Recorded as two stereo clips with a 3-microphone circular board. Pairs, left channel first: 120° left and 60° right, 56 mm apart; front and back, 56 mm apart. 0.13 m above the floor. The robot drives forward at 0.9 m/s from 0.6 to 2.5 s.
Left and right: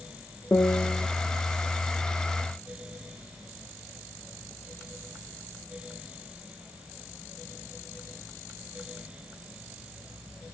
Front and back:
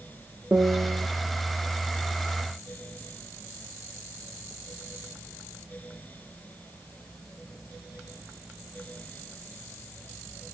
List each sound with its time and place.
0.5 s a piano: 145° left, 0.6 m; by 1.1 s 160° left, 0.9 m